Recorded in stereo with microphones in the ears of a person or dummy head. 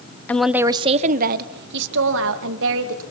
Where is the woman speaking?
15° left (ahead or behind), 1.1 m; by 3.0 s 75° right (ahead or behind), 3.5 m.